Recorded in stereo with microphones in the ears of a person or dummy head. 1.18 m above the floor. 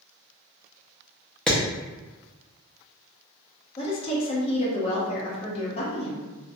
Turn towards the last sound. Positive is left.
turn(degrees=30)  # may be behind; listen again after turning